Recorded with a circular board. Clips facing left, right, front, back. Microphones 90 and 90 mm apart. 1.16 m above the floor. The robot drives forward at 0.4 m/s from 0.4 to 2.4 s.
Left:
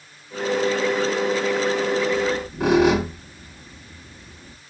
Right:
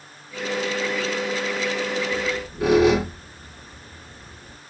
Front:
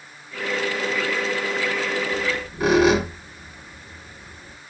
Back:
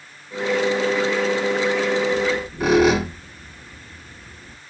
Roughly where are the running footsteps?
No running footsteps in this recording.